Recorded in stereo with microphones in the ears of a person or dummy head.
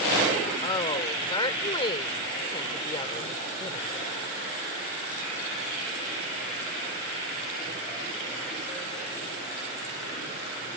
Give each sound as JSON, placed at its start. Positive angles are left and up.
{"t": 0.6, "sound": "a woman speaking", "side_deg": 25}